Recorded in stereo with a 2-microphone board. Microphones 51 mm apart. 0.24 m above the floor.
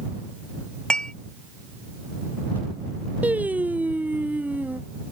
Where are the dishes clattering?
15° left (ahead or behind).